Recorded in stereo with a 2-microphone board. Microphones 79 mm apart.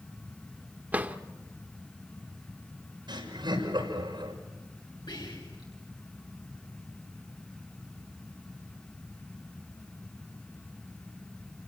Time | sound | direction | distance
0.9 | a drawer | 20° right (ahead or behind) | 1.1 m
3.1 | laughter | 75° right (ahead or behind) | 6 m
5.1 | whispering | 70° left (ahead or behind) | 8 m